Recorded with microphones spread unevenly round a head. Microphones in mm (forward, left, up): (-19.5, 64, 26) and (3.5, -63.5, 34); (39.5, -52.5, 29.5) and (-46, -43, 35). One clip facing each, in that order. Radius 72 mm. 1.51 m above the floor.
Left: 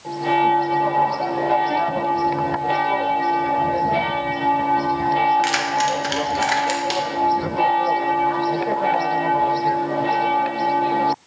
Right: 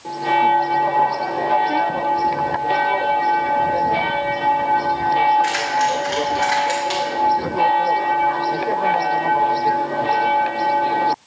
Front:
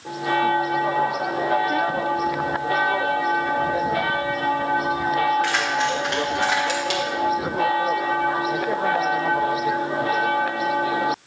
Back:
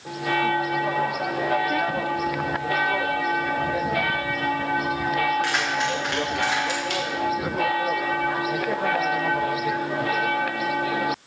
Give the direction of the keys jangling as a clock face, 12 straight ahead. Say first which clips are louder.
Right 1 dB, front 2 dB; 9 o'clock.